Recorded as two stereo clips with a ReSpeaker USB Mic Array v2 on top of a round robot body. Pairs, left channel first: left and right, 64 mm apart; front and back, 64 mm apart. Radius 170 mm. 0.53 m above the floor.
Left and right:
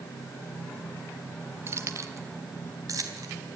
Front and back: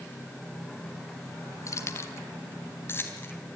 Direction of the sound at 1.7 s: 40° right.